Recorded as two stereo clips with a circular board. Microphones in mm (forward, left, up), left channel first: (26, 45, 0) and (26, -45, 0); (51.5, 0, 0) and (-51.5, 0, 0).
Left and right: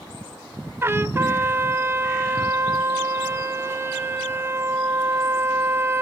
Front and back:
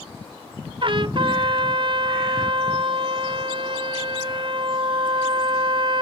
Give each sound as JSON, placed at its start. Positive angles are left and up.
{"t": 0.8, "sound": "a trumpet", "azimuth_deg": -150, "distance_m": 0.5}